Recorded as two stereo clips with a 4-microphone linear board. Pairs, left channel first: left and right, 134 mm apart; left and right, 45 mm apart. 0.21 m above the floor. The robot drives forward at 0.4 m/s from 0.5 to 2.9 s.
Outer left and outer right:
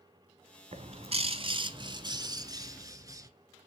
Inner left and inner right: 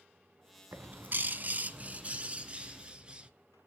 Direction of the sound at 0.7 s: 50° right (ahead or behind).